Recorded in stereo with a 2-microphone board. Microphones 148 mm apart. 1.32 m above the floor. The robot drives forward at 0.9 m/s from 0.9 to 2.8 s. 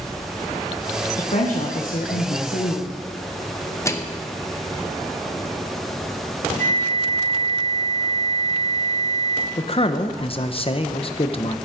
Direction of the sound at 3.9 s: 20° left (ahead or behind).